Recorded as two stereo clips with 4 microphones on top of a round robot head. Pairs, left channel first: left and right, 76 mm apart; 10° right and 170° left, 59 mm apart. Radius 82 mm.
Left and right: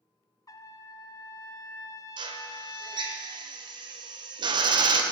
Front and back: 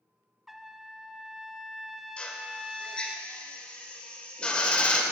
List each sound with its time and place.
0.5 s a trumpet: 85° left, 0.5 m
2.2 s a drill: 85° right, 0.8 m